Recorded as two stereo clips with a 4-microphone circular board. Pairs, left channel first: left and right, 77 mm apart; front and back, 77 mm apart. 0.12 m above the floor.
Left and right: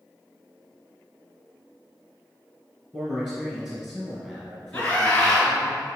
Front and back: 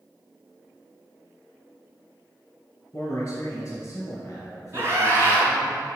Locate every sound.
2.9 s a man speaking: 20° right, 1.3 m
4.7 s a scream: 155° left, 1.4 m